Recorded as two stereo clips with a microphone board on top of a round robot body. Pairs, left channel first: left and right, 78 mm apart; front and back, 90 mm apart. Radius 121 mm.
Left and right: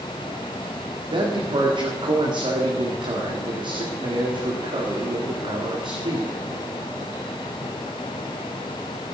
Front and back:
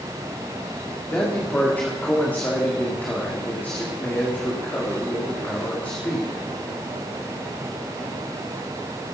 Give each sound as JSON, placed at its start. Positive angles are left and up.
{"t": 1.1, "sound": "a man speaking", "azimuth_deg": -75, "distance_m": 2.0}